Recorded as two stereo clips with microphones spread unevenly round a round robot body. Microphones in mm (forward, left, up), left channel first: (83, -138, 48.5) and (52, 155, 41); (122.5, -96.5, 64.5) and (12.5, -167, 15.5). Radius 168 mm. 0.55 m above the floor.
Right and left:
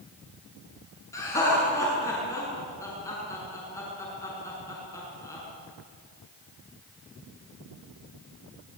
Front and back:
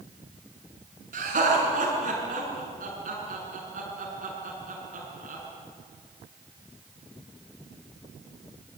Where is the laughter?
165° right, 7 m.